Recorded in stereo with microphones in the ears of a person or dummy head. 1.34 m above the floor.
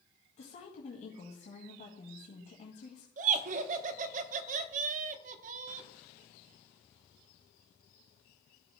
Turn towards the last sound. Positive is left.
turn(degrees=-50)  # may be behind; listen again after turning